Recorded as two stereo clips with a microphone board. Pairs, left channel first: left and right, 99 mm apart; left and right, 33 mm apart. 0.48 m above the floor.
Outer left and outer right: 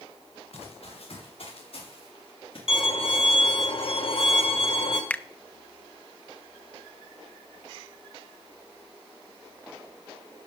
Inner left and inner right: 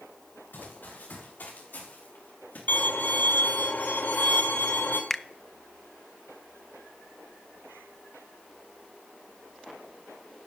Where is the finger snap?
15° left (ahead or behind), 0.5 m.